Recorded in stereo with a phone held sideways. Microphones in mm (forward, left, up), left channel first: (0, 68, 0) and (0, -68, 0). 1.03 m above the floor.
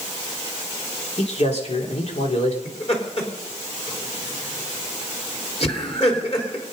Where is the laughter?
50° left (ahead or behind), 3.5 m.